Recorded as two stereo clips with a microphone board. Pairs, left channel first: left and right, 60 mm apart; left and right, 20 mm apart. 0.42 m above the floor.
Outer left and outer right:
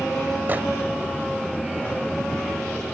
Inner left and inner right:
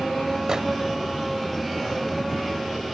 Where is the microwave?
35° right (ahead or behind), 1.3 m.